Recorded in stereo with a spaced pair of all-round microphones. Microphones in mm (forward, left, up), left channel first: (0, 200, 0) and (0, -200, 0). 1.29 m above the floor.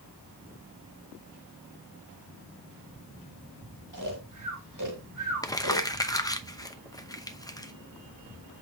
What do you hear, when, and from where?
3.9 s snoring: 50° right (ahead or behind), 1.9 m
5.4 s crumpling: 10° left (ahead or behind), 0.8 m